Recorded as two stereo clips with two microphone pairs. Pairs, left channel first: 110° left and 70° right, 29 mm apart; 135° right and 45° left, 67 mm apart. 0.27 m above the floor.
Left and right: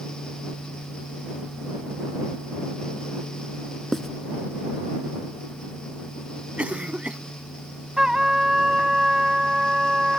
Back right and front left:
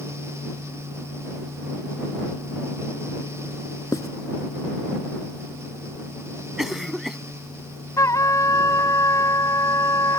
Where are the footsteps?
No footsteps in this recording.